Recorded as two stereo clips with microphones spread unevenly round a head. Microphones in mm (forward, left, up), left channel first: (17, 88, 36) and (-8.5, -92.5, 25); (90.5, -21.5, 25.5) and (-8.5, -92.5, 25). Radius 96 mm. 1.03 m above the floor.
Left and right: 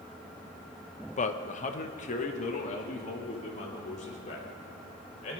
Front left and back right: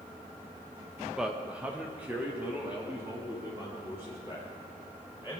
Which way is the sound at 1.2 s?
130° left.